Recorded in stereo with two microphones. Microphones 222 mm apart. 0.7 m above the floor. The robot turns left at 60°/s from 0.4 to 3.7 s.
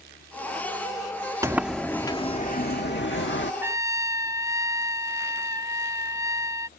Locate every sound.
1.4 s a sliding door: 165° right; by 3.5 s 70° left
3.6 s a trumpet: 10° right (ahead or behind); by 6.7 s 15° right (ahead or behind)